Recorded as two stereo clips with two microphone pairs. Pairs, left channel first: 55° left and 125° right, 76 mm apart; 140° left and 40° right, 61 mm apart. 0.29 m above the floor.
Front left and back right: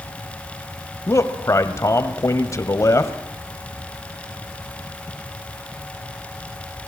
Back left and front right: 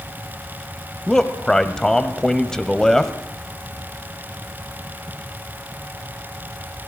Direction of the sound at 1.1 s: 65° left.